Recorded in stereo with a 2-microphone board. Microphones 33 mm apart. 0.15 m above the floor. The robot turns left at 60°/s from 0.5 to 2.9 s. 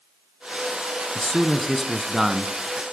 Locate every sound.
1.1 s a man speaking: 15° left (ahead or behind), 1.1 m; by 2.5 s 15° right (ahead or behind), 1.1 m